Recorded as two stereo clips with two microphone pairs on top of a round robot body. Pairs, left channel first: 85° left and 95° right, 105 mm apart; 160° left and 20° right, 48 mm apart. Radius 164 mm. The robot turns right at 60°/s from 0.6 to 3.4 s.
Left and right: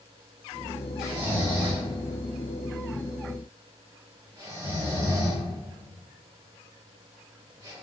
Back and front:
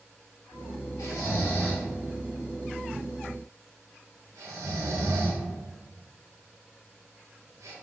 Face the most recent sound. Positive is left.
turn(degrees=-35)